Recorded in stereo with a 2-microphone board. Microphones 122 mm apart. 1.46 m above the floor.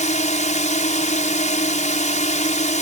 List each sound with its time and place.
0.0 s a drone: 80° left